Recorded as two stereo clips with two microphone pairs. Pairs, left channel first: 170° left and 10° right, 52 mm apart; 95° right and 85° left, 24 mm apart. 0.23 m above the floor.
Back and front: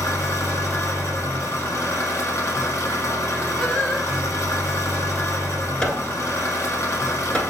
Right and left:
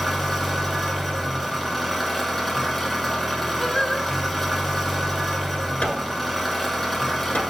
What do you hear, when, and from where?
0.0 s an engine running: 170° left, 1.1 m
3.6 s singing: 135° right, 0.7 m
5.8 s hammering: 120° right, 1.1 m